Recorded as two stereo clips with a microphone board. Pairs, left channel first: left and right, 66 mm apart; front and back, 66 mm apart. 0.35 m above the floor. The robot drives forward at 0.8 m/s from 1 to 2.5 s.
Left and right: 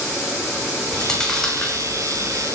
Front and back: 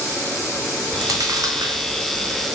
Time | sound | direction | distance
0.9 | chewing | 170° left | 0.9 m